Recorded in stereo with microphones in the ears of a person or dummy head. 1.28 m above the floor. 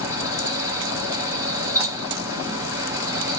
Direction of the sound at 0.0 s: 10° right (ahead or behind).